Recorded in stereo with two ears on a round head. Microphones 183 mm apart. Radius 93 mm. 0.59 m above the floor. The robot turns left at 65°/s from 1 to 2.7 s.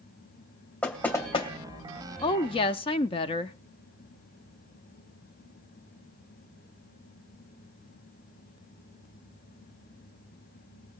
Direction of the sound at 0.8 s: 5° left (ahead or behind).